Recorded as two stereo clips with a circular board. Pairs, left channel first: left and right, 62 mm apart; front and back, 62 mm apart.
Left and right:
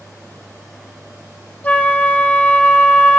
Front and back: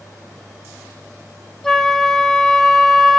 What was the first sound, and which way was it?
A flute, 75° left.